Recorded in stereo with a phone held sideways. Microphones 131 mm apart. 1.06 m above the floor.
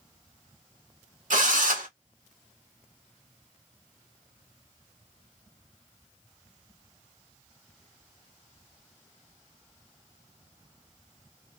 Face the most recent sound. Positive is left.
turn(degrees=-85)